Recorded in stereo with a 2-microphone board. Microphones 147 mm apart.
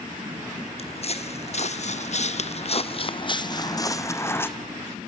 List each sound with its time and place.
0.8 s footsteps: 45° left (ahead or behind), 1.3 m; by 4.5 s 15° left (ahead or behind), 1.3 m